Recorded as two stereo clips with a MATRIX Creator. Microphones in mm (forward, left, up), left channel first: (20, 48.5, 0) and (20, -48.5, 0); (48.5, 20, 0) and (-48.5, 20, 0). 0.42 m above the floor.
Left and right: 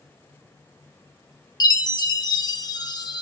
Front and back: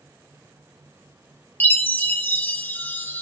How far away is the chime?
About 0.6 m.